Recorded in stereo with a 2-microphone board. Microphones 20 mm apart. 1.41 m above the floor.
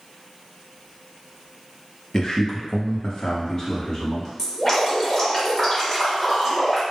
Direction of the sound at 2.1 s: 35° left (ahead or behind).